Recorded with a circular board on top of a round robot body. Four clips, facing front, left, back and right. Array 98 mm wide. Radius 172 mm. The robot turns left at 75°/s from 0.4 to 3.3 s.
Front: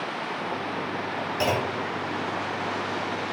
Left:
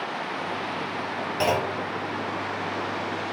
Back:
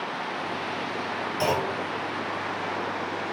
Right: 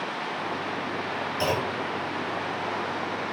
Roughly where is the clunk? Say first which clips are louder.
Left 3 dB, even; left.